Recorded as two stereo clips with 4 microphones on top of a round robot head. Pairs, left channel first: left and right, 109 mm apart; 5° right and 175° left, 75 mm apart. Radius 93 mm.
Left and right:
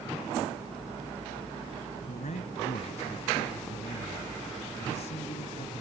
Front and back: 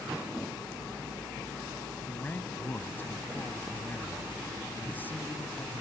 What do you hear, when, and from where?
2.1 s a man speaking: 60° left